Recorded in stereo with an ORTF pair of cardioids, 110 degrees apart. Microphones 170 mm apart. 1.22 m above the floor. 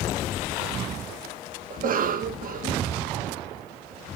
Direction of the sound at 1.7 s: 55° right.